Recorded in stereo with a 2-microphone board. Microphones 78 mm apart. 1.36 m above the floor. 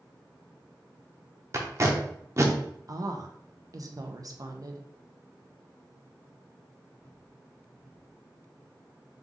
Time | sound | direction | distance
1.5 | tape being pulled | 40° right (ahead or behind) | 0.8 m
2.9 | a woman speaking | 50° right (ahead or behind) | 0.6 m